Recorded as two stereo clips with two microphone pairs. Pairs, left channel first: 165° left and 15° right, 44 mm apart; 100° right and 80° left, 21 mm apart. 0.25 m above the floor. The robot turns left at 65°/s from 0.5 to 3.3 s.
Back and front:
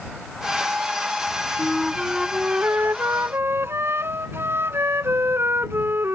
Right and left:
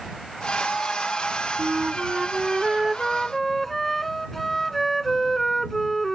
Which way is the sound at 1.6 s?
90° left.